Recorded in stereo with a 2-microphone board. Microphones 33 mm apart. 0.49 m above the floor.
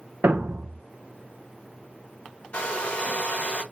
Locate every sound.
0.2 s a thud: 65° right (ahead or behind), 1.0 m
2.5 s a hair dryer: 40° left (ahead or behind), 1.5 m